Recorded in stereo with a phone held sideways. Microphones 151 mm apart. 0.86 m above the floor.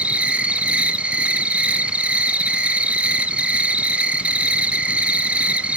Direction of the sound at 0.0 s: 10° right (ahead or behind).